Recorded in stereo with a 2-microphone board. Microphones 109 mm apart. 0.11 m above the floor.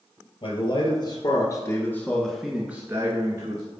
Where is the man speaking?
50° left (ahead or behind), 2.5 m; by 3.6 s 45° right (ahead or behind), 1.6 m.